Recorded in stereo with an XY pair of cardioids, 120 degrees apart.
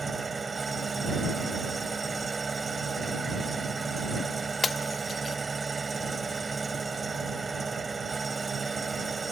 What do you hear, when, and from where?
0.0 s an engine running: 25° right
4.6 s breaking glass: 30° left